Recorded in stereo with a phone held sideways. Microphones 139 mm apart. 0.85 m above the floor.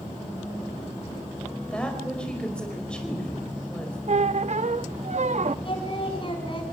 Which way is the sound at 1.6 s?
10° left (ahead or behind).